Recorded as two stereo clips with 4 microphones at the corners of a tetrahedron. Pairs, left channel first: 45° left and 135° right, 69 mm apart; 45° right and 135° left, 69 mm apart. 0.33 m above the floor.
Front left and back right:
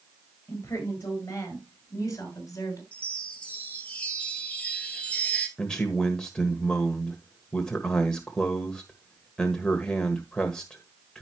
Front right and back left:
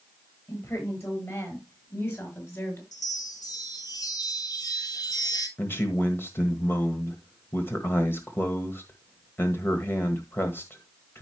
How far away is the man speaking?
About 1.4 m.